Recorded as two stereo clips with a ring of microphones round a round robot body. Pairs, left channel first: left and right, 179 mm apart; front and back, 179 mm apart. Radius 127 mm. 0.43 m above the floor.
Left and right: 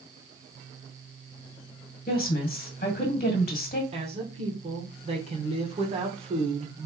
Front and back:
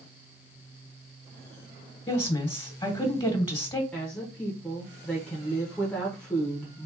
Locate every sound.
2.1 s a woman speaking: 60° left, 1.6 m
3.9 s a woman speaking: 80° right, 0.9 m